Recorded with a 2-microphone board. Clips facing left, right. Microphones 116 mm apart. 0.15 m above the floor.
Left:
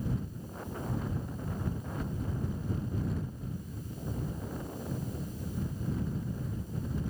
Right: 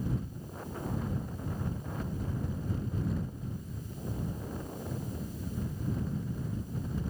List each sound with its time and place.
Only background noise.